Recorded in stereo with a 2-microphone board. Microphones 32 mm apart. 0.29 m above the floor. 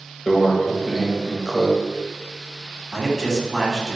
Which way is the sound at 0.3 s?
Centre (ahead or behind).